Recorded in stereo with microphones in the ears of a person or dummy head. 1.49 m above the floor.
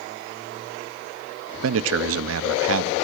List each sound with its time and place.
1.6 s a man speaking: 75° right (ahead or behind), 0.6 m